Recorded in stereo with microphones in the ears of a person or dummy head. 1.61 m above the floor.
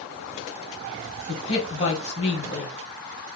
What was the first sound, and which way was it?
A man speaking, 40° left (ahead or behind).